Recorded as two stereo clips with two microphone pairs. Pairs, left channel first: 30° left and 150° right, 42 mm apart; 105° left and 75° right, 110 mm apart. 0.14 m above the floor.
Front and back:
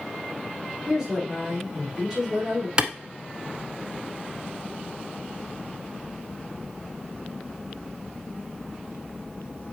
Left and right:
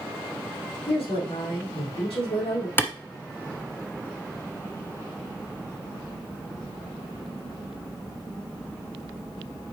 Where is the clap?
160° left, 1.1 m.